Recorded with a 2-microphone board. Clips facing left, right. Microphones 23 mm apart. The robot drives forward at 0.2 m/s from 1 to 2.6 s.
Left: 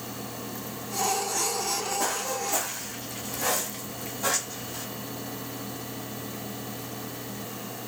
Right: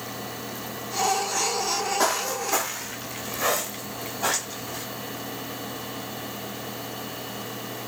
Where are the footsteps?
40° right (ahead or behind), 0.8 m; by 4.8 s 35° right (ahead or behind), 2.5 m.